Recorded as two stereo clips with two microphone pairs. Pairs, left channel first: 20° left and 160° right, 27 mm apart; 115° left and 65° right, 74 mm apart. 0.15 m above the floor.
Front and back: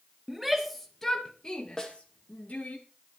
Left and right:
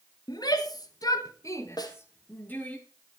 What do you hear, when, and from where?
0.3 s a shout: 120° left, 2.5 m; by 2.8 s 50° left, 3.5 m
1.8 s a snare drum: 90° left, 3 m